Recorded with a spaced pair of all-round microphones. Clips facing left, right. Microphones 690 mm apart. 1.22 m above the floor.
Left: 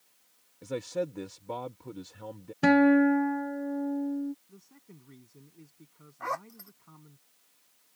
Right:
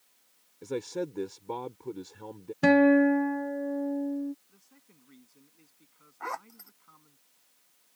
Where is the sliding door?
I don't hear a sliding door.